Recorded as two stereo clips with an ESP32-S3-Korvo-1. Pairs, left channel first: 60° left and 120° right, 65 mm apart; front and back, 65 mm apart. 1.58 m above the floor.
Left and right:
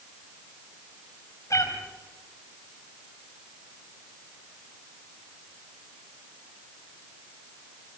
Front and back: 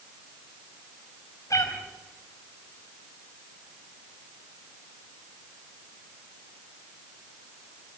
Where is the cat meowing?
30° left, 4.5 m.